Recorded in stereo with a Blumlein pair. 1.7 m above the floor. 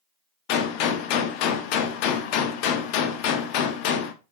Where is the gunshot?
45° left, 0.6 m.